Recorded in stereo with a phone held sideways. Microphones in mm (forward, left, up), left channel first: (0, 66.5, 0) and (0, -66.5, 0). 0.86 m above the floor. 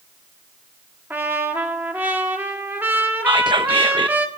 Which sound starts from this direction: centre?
A trumpet, at 1.1 s.